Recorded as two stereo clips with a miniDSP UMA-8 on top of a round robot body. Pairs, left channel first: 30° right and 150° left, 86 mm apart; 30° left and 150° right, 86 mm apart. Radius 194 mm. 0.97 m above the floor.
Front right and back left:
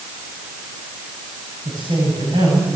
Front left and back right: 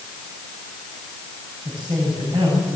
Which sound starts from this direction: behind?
A man speaking, at 1.6 s.